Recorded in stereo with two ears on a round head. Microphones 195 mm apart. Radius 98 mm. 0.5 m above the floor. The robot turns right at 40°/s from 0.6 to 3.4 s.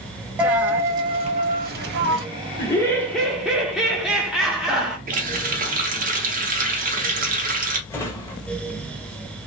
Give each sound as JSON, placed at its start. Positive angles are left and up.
{"t": 0.4, "sound": "a dropped coin", "azimuth_deg": -175, "distance_m": 0.8}
{"t": 2.6, "sound": "laughter", "azimuth_deg": 150, "distance_m": 0.8}
{"t": 5.1, "sound": "a running tap", "side_deg": -40, "distance_m": 0.7}
{"t": 7.9, "sound": "a drawer", "side_deg": 10, "distance_m": 0.9}